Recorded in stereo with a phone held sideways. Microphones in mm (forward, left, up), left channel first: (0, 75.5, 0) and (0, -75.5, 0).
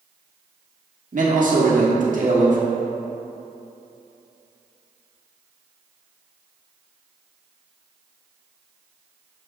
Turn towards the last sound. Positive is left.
turn(degrees=-60)  # may be behind; listen again after turning